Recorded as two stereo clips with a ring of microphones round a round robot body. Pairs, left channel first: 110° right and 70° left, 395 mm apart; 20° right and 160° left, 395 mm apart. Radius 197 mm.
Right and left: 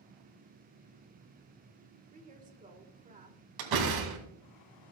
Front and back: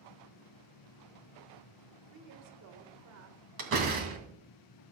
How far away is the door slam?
About 2.5 m.